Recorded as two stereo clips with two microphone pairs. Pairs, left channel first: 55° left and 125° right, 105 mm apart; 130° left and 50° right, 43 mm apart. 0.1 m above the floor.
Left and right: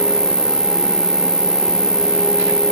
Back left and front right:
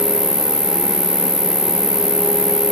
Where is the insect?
25° right, 2 m.